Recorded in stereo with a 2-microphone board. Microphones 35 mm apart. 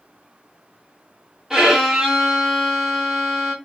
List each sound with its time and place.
1.5 s a violin: 10° right (ahead or behind), 1.6 m